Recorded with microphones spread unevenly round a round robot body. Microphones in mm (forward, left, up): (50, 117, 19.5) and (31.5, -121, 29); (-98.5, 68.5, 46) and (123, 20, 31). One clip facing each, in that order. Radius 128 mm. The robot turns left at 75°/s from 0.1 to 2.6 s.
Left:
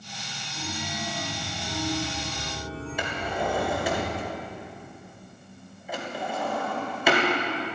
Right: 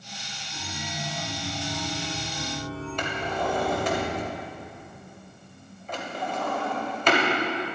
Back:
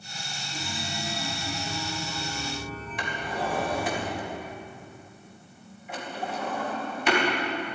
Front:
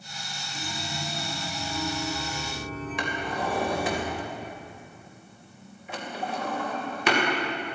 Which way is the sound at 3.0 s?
5° left.